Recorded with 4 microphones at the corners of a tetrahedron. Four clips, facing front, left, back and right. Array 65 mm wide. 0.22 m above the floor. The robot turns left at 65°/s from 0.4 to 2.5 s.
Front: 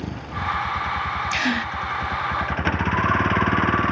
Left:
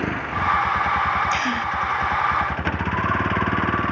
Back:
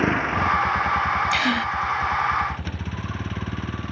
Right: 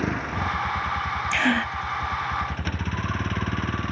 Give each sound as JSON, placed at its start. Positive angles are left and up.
{"t": 0.0, "sound": "a vehicle", "azimuth_deg": 170}
{"t": 1.3, "sound": "a gasp", "azimuth_deg": -75}